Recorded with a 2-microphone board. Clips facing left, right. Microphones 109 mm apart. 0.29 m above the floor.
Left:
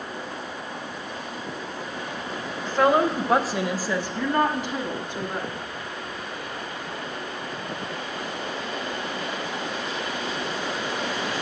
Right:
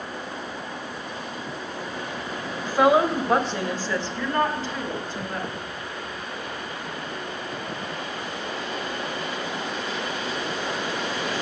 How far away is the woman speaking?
About 0.9 m.